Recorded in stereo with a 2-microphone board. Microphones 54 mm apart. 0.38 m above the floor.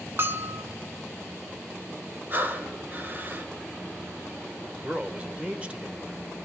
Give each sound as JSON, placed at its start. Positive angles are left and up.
{"t": 0.2, "sound": "a bell", "side_deg": -40, "distance_m": 0.7}
{"t": 2.3, "sound": "breathing", "side_deg": -35, "distance_m": 0.8}
{"t": 4.8, "sound": "a man speaking", "side_deg": -25, "distance_m": 1.0}